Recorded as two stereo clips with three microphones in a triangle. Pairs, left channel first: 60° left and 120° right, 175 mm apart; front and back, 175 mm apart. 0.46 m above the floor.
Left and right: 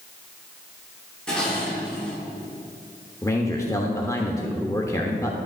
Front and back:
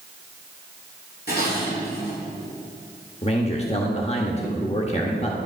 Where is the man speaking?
Straight ahead, 1.0 m.